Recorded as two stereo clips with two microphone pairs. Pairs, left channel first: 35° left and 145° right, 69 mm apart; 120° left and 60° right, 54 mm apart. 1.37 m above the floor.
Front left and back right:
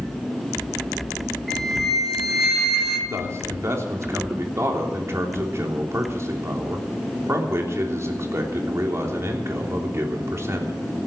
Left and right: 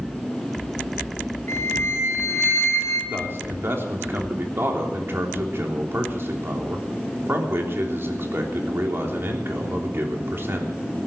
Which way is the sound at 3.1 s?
100° right.